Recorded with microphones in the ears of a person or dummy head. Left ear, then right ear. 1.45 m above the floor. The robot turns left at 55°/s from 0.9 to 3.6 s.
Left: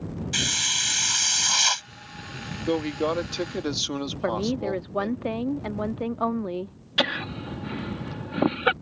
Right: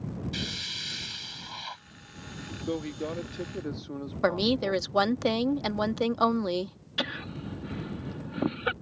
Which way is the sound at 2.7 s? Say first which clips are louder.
Left 8 dB; 160° left.